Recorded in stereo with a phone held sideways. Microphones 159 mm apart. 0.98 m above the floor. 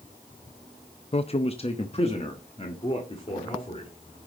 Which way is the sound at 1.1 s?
40° left (ahead or behind).